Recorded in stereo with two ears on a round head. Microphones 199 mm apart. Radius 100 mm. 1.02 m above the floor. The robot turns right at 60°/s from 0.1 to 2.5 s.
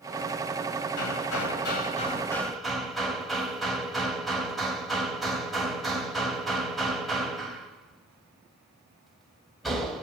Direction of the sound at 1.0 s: 90° left.